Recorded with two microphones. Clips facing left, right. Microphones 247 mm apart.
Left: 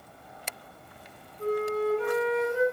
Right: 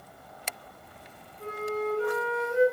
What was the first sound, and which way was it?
A flute, 60° left (ahead or behind).